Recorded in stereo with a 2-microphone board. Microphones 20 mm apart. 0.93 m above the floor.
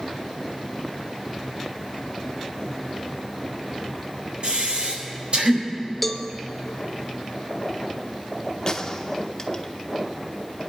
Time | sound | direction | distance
4.4 | breathing | 60° right (ahead or behind) | 4 m
6.0 | a cowbell | 5° left (ahead or behind) | 0.8 m
8.7 | a gunshot | 30° left (ahead or behind) | 1.1 m